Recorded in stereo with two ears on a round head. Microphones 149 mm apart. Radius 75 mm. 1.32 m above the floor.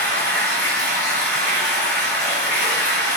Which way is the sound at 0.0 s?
10° left (ahead or behind).